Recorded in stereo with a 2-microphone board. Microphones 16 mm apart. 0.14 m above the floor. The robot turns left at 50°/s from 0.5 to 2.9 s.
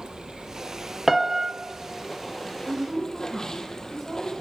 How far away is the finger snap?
No finger snap in this recording.